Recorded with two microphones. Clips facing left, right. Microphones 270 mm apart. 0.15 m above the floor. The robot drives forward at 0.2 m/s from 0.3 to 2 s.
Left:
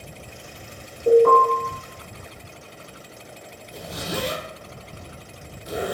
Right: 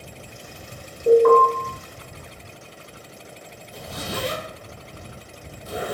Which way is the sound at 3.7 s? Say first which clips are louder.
Left 2 dB; 20° left (ahead or behind).